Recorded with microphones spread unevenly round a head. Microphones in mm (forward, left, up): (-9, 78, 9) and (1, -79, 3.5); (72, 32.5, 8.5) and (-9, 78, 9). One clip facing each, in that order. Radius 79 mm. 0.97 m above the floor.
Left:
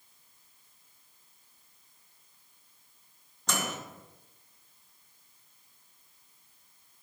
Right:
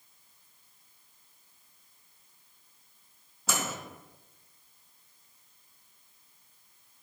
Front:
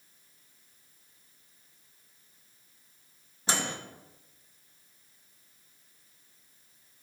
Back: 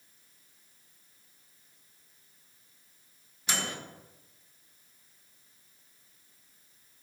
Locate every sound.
3.5 s a microwave: 5° right, 0.5 m